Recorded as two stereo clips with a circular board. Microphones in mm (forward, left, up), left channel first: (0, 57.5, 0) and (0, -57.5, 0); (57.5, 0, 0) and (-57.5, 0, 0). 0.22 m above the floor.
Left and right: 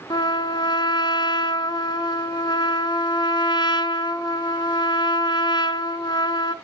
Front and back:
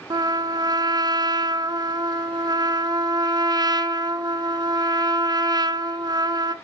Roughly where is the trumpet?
Behind left.